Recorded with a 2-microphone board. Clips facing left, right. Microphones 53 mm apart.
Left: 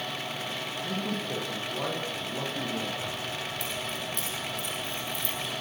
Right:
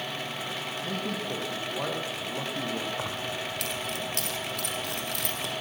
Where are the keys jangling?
70° right (ahead or behind), 5 m.